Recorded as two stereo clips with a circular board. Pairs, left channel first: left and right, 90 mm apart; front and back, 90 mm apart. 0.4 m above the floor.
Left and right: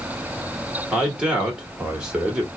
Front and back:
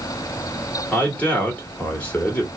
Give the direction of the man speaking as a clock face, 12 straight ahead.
1 o'clock.